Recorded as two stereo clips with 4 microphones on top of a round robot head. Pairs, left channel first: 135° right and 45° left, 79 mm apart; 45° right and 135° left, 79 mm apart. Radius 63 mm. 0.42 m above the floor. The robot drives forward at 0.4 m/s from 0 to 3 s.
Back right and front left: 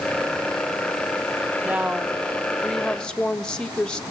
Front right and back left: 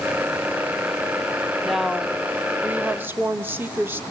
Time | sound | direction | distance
1.6 | a woman speaking | 40° left | 0.8 m